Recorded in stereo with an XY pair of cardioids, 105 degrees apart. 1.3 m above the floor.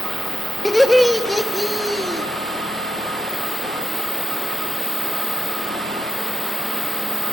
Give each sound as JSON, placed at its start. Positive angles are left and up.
{"t": 0.7, "sound": "laughter", "azimuth_deg": 5, "distance_m": 2.0}